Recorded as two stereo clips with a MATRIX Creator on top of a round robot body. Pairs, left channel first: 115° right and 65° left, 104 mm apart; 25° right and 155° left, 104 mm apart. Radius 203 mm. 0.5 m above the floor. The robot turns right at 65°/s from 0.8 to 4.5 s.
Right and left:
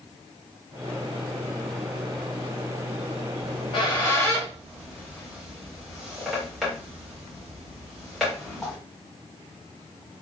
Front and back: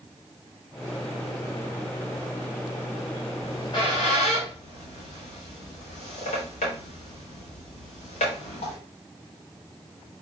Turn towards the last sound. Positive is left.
turn(degrees=-20)